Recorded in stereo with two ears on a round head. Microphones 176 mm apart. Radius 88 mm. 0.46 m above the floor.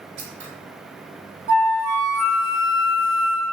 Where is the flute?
80° right, 0.8 m.